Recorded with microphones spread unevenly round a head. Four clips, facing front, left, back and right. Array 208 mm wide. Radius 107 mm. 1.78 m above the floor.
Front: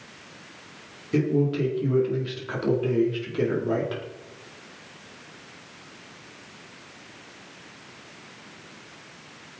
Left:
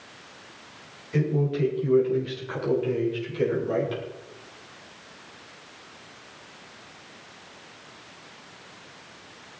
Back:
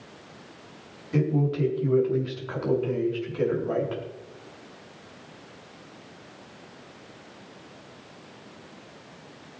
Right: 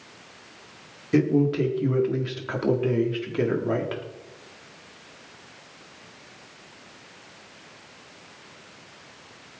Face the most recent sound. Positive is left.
turn(degrees=-55)